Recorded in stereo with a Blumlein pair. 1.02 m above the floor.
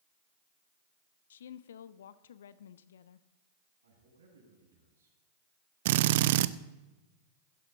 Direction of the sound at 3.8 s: 70° right.